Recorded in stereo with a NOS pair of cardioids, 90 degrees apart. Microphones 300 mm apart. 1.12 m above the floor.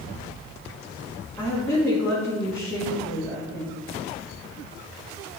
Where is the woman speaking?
10° left, 2.5 m.